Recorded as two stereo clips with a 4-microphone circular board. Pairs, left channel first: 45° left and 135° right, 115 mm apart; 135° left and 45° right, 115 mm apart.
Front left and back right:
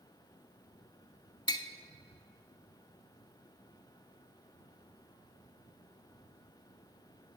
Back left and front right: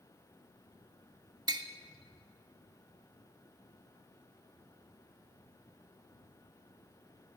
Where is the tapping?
Straight ahead, 0.6 m.